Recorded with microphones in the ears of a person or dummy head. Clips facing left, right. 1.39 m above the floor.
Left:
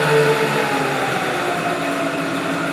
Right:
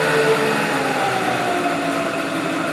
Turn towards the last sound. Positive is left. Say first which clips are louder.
# left 1 dB
turn(degrees=20)  # may be behind; listen again after turning